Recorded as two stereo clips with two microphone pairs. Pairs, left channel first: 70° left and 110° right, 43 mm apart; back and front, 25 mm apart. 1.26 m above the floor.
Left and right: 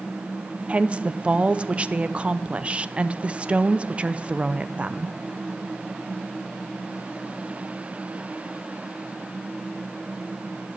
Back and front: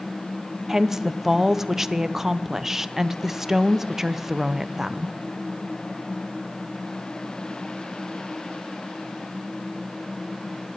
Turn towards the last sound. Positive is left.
turn(degrees=-60)